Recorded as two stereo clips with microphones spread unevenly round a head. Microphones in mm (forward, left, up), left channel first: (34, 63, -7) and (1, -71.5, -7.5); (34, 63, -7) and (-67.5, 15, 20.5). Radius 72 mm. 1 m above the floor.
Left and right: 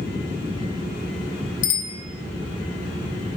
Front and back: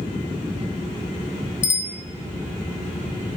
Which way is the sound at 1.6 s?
45° left.